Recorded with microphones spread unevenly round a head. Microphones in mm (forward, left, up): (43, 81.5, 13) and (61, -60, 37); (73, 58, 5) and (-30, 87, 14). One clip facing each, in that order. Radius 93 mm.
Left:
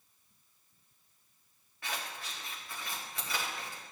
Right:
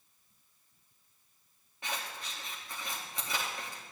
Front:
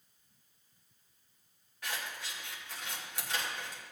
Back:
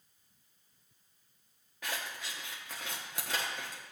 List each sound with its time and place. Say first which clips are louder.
1.8 s scissors: right 1 dB, back 1 dB; 160° right, 1.2 m